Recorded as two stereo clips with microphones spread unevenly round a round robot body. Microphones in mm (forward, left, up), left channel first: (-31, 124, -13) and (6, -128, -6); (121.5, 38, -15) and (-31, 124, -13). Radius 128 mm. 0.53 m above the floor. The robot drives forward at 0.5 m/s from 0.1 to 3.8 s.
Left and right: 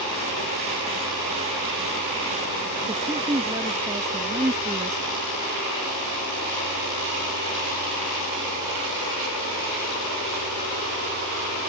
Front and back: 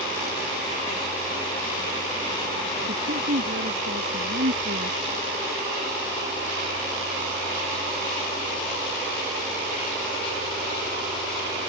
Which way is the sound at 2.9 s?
160° right.